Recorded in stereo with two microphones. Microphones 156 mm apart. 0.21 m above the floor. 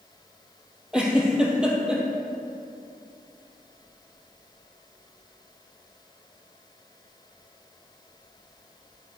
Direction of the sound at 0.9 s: 5° right (ahead or behind).